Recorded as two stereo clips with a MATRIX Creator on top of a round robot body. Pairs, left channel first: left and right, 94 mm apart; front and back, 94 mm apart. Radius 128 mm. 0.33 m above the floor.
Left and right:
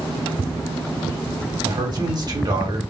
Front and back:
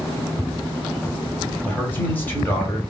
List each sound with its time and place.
1.6 s a man speaking: 65° right, 1.7 m